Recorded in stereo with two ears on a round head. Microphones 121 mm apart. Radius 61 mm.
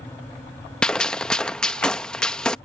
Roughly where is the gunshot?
Centre.